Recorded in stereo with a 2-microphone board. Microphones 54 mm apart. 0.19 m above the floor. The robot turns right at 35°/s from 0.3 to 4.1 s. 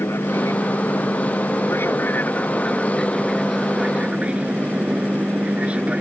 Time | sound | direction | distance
0.0 | an aircraft | 75° left | ?